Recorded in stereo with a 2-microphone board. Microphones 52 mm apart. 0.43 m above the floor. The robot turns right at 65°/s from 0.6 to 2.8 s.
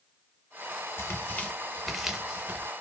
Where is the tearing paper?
50° left (ahead or behind), 0.6 m; by 2.7 s 40° right (ahead or behind), 0.6 m.